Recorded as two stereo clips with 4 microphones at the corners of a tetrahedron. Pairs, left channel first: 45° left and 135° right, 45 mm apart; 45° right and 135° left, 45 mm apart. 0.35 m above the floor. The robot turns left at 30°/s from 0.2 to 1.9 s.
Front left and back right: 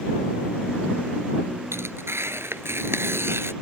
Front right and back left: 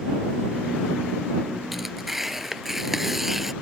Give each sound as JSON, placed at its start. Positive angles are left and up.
{"t": 1.7, "sound": "tearing paper", "azimuth_deg": -140}